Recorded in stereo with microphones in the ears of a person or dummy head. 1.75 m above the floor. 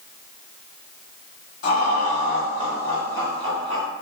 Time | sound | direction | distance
1.6 | laughter | 50° left (ahead or behind) | 1.3 m